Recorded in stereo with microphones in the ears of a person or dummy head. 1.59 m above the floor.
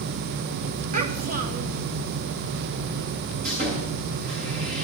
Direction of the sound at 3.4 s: 55° right (ahead or behind).